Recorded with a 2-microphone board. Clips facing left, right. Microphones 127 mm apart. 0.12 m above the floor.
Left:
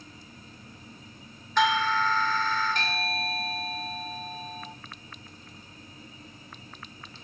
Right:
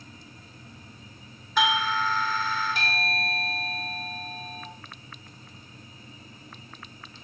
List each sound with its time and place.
1.6 s a doorbell: 5° right (ahead or behind), 1.7 m